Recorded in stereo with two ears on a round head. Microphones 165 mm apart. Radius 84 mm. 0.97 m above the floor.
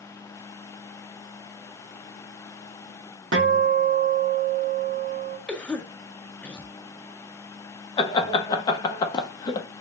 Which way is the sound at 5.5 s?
5° left (ahead or behind).